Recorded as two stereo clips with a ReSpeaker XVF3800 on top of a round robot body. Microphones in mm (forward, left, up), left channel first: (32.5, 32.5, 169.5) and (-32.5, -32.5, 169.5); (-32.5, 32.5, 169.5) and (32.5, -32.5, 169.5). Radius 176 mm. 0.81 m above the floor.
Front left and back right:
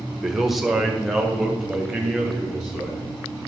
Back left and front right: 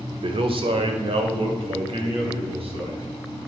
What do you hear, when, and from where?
0.2 s a man speaking: 45° right, 1.3 m